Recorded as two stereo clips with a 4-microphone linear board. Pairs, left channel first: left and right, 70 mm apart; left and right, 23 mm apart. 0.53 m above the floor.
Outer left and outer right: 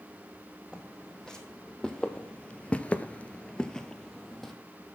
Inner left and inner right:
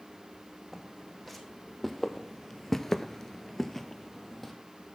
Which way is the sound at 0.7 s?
10° left (ahead or behind).